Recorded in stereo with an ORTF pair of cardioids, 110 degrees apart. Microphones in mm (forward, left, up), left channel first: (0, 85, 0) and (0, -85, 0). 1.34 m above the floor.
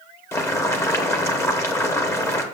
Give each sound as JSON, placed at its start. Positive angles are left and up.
{"t": 0.3, "sound": "boiling", "azimuth_deg": 15, "distance_m": 1.0}